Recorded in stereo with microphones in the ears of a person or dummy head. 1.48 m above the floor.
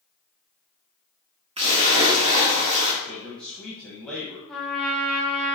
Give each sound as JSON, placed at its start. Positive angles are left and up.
{"t": 1.6, "sound": "a splash", "side_deg": -35, "distance_m": 1.7}
{"t": 3.0, "sound": "a man speaking", "side_deg": 5, "distance_m": 1.5}
{"t": 4.5, "sound": "a trumpet", "side_deg": 5, "distance_m": 1.3}